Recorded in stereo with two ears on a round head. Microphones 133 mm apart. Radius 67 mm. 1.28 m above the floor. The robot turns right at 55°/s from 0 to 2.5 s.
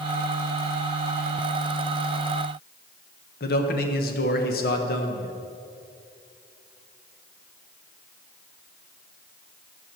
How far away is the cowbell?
No cowbell in this recording.